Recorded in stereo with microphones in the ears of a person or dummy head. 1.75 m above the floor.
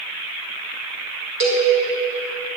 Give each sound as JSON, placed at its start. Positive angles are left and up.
{"t": 1.4, "sound": "a cowbell", "side_deg": -60, "distance_m": 3.0}